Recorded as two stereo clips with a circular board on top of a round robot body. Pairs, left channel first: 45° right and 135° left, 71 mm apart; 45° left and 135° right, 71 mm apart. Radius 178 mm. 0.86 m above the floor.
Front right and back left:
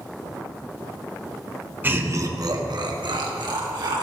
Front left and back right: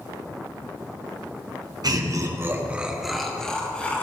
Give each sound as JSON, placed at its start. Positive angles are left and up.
{"t": 1.8, "sound": "laughter", "azimuth_deg": -160, "distance_m": 1.9}